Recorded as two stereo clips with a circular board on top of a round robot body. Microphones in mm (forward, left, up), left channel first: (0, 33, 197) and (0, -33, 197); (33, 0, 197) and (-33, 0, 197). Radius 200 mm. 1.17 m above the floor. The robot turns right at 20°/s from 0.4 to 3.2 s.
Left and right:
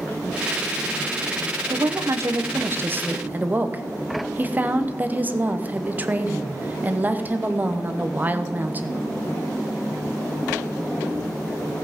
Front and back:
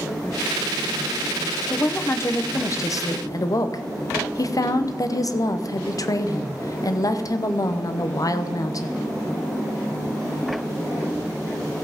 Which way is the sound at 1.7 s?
60° right.